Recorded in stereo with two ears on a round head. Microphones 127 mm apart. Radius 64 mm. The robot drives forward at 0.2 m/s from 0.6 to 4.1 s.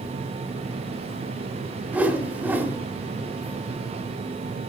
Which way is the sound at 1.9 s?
10° right (ahead or behind).